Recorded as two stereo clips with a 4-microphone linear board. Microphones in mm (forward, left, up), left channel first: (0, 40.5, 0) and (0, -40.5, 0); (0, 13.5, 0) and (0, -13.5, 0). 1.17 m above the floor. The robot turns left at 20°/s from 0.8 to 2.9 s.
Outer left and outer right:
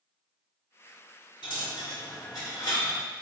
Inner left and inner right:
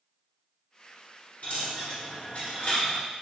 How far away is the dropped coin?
About 1.7 m.